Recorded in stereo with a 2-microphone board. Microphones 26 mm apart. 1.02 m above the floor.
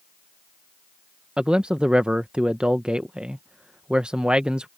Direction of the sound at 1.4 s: 45° right (ahead or behind).